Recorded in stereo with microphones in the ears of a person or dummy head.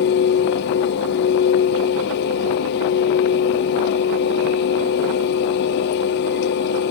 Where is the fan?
60° left (ahead or behind), 0.7 m.